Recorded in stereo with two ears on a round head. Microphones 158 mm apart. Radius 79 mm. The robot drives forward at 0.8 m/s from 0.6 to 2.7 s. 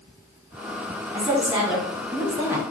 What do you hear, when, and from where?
1.1 s a woman speaking: 10° right (ahead or behind), 2.5 m; by 2.6 s 15° right (ahead or behind), 1.3 m